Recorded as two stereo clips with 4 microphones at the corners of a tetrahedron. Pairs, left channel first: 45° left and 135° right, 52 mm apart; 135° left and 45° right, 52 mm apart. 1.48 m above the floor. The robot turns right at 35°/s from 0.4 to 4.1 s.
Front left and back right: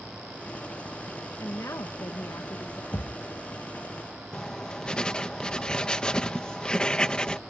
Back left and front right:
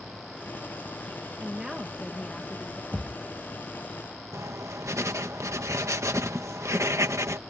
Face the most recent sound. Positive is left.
turn(degrees=-30)